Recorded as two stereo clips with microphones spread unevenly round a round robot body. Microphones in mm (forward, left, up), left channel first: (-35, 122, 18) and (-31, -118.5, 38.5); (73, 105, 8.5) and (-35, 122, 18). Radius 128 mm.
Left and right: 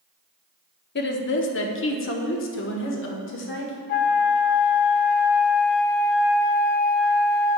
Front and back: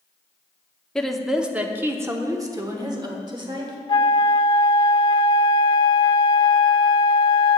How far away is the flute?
About 0.9 m.